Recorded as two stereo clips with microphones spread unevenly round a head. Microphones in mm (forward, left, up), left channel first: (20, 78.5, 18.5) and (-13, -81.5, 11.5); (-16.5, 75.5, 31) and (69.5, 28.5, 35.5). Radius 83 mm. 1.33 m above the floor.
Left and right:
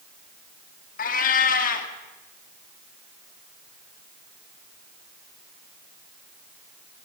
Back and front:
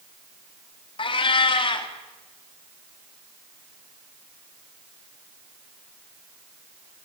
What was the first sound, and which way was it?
A cat meowing, 120° left.